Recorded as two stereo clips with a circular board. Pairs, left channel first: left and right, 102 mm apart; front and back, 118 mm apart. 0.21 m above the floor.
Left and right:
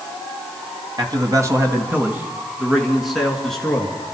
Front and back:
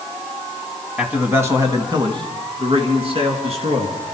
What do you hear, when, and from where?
1.0 s a man speaking: 100° right, 1.8 m; by 3.9 s 175° left, 3.5 m